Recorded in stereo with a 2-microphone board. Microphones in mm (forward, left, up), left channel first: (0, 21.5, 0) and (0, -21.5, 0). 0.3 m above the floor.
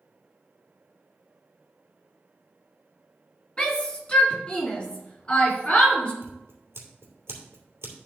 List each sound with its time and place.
3.6 s a shout: 25° left (ahead or behind), 2.5 m
6.2 s scissors: 75° right (ahead or behind), 3 m